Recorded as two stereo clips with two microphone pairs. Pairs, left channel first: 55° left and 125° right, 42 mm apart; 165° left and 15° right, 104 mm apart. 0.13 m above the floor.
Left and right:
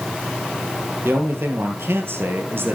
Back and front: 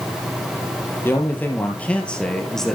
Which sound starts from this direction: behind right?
A man speaking, at 1.0 s.